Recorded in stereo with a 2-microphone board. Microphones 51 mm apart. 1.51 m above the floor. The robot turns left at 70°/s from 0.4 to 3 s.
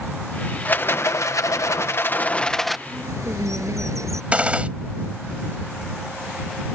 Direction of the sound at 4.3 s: 25° right (ahead or behind).